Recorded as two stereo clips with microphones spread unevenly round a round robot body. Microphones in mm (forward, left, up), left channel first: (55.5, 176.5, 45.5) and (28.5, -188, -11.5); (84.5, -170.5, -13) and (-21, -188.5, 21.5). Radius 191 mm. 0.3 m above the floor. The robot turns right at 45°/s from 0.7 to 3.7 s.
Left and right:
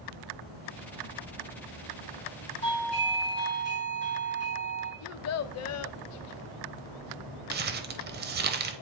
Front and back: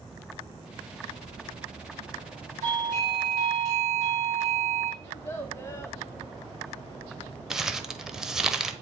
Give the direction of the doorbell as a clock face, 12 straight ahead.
6 o'clock.